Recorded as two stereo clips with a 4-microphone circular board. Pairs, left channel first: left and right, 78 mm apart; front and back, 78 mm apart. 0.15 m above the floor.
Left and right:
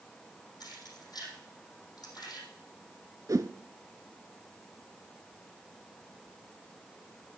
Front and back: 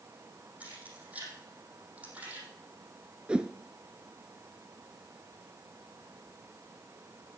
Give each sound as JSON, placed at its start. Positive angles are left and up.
{"t": 0.6, "sound": "keys jangling", "azimuth_deg": 110, "distance_m": 4.5}
{"t": 3.3, "sound": "a whoosh", "azimuth_deg": -110, "distance_m": 0.6}